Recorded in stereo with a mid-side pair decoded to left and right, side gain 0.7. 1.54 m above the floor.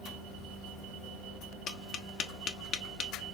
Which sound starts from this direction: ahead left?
Tapping, at 1.7 s.